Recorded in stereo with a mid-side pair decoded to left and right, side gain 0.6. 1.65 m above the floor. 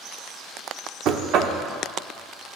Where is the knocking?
60° right, 0.8 m.